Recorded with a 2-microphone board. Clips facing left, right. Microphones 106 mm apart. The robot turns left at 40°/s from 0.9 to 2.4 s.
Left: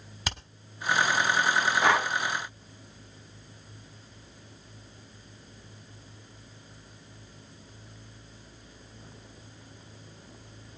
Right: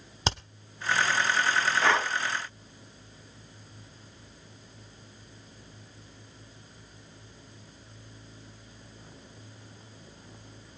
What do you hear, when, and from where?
0.2 s hammering: 30° right (ahead or behind), 1.1 m
1.8 s breathing: 15° left (ahead or behind), 1.1 m; by 2.1 s 5° left (ahead or behind), 1.1 m